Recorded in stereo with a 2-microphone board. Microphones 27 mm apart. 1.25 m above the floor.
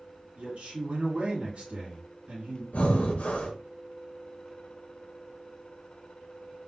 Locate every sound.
0.4 s a man speaking: 70° right (ahead or behind), 2 m
2.7 s breathing: 75° left (ahead or behind), 1.0 m